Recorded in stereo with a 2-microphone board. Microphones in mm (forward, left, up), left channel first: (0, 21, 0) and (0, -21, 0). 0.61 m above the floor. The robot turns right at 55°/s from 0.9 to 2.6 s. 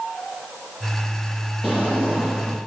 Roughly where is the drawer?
Behind left.